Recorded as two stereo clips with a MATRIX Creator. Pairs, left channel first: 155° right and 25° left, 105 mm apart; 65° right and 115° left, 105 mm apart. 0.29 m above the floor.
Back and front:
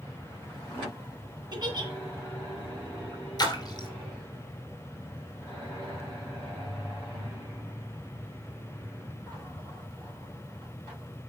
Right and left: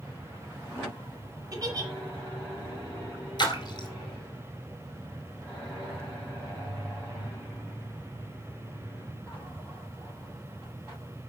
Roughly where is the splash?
Right.